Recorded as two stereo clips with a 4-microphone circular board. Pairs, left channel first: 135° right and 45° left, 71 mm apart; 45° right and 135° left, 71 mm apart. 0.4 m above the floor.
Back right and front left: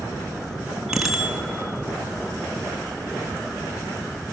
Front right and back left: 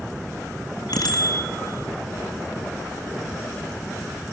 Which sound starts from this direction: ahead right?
A bicycle bell, at 0.9 s.